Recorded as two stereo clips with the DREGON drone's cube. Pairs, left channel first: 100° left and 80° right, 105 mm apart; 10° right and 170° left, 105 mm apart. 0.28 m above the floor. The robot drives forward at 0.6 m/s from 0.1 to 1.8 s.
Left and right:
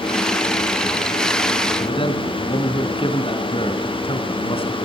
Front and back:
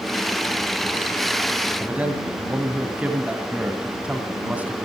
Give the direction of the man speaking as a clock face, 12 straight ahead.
9 o'clock.